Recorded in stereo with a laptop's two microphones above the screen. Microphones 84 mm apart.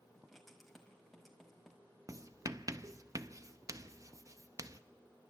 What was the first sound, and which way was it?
Writing, centre (ahead or behind).